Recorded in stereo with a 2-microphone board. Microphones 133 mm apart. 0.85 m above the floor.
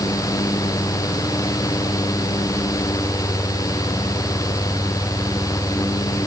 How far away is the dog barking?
I don't hear a dog barking.